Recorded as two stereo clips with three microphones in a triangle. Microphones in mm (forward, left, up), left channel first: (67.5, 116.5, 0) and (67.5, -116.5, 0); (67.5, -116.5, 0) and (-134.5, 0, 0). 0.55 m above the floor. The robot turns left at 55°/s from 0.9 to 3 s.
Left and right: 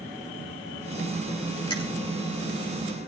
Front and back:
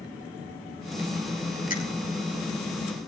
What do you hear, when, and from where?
1.7 s a finger snap: 20° left, 3 m; by 1.8 s 15° left, 3 m